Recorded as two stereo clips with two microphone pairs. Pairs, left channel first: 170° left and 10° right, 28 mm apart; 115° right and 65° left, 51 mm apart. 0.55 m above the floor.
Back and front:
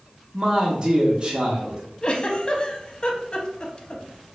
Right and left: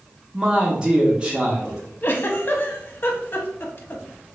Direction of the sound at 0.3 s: 5° left.